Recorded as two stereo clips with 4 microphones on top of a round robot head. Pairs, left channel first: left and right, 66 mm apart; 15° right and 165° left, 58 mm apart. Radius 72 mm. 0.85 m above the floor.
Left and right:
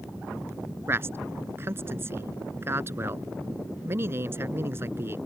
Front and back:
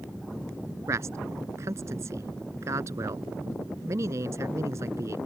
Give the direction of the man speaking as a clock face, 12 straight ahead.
5 o'clock.